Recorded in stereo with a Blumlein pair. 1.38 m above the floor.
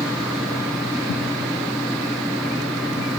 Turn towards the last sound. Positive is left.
turn(degrees=5)